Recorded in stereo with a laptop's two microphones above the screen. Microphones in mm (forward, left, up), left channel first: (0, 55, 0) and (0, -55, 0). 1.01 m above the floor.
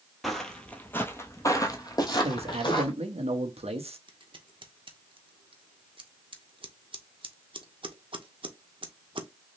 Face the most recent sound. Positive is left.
turn(degrees=-50)  # may be behind; listen again after turning